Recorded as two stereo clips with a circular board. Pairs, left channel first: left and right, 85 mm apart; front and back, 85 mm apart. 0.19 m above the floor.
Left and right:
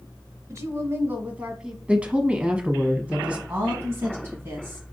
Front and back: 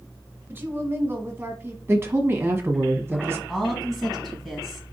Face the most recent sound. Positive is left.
turn(degrees=-80)